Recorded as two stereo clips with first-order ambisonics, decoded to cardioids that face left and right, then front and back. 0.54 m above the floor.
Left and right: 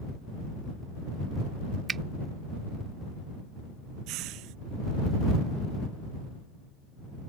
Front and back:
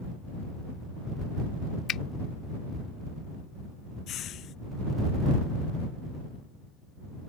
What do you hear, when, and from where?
1.9 s a finger snap: 30° right
4.1 s a hiss: 55° right